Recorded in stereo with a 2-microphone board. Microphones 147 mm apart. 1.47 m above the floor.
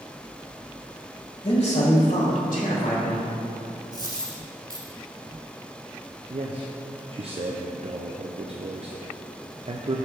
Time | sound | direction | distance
1.4 | a man speaking | 50° left (ahead or behind) | 1.3 m
3.9 | a dropped coin | 30° right (ahead or behind) | 1.8 m
6.3 | a man speaking | 40° right (ahead or behind) | 0.5 m